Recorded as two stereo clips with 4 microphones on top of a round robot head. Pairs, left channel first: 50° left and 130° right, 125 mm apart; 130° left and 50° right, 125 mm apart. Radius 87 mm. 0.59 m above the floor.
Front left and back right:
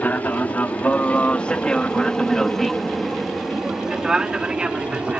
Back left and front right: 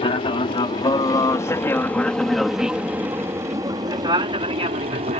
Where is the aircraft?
120° left; by 5.2 s 50° right.